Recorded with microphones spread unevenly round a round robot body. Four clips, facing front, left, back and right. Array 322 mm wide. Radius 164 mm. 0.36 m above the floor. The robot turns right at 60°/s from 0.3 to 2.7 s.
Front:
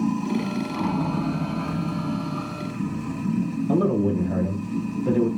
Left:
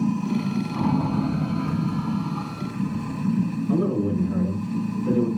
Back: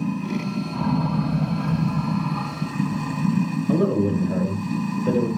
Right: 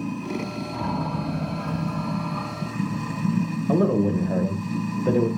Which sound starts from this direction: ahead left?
Running water, at 0.0 s.